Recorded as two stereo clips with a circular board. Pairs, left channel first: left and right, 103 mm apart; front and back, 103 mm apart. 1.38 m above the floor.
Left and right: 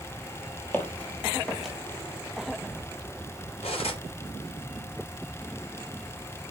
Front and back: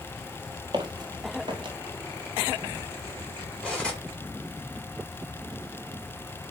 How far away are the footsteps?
About 2 m.